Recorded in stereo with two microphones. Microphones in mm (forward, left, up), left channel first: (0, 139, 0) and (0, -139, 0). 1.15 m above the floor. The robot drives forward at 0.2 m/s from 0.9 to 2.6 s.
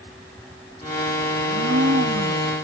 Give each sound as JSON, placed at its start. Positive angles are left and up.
{"t": 1.4, "sound": "a blender", "side_deg": -50, "distance_m": 0.6}